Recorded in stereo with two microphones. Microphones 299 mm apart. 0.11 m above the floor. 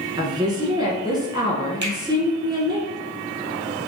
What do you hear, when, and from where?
0.2 s a woman speaking: 15° right (ahead or behind), 1.2 m
1.8 s a finger snap: 35° right (ahead or behind), 2 m